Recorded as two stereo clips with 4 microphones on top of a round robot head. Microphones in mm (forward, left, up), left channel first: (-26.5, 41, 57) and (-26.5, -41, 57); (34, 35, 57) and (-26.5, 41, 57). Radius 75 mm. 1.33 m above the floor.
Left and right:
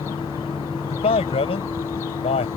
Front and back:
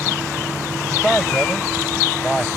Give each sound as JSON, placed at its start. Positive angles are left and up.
{"t": 0.9, "sound": "a man speaking", "azimuth_deg": 80}